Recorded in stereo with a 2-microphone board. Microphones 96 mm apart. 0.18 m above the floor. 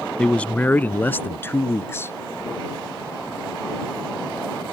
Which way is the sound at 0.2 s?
10° left (ahead or behind).